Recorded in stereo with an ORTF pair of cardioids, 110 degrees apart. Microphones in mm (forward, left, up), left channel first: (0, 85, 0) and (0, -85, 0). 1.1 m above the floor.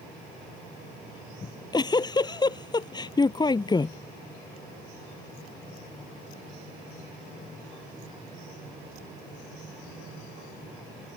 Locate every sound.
1.4 s a giggle: 25° left